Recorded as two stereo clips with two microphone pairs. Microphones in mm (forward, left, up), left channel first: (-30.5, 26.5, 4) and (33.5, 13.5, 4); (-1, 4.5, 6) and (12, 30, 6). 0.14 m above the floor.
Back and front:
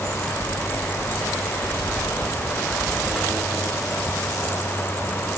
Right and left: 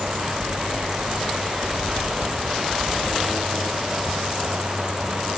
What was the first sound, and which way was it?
Only background noise.